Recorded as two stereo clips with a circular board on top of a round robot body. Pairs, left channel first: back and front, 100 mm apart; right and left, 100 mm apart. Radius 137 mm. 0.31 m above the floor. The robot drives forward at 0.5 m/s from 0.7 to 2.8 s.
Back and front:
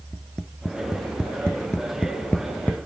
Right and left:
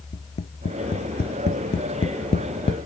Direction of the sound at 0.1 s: 90° right.